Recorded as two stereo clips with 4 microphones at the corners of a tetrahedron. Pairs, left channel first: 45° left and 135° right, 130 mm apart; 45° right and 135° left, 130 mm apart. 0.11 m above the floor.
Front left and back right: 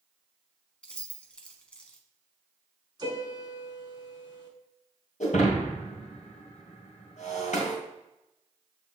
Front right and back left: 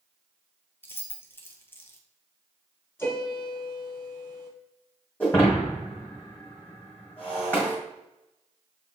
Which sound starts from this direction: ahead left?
Breaking glass, at 5.2 s.